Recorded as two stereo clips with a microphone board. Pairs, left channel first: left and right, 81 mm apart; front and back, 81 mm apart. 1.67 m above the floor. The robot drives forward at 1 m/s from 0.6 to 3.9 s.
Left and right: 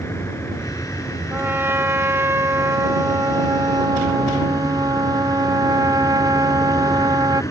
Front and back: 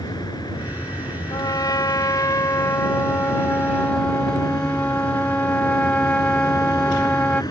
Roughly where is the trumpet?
Ahead right.